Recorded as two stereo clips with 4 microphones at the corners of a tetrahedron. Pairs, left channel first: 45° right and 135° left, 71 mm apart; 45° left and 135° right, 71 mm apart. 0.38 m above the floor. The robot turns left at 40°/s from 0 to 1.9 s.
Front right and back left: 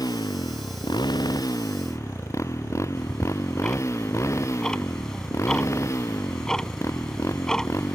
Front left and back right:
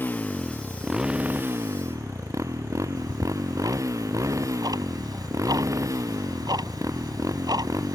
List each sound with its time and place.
0.0 s a motorcycle: 15° right; by 8.0 s 90° right
3.0 s ticking: 125° right